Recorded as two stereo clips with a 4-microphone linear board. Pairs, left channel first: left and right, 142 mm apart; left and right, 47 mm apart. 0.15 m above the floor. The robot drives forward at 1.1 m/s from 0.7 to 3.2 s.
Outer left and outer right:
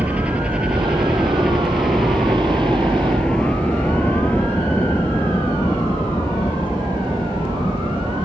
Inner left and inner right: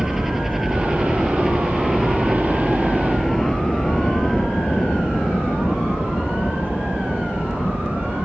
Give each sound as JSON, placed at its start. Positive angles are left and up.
{"t": 0.0, "sound": "a helicopter", "side_deg": -10}